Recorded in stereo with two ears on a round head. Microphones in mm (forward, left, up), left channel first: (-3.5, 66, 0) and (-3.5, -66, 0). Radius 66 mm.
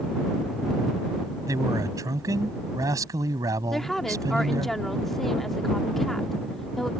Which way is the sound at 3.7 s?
Centre (ahead or behind).